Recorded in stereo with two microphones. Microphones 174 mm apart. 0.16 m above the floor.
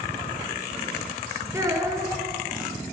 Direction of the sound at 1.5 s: 15° right (ahead or behind).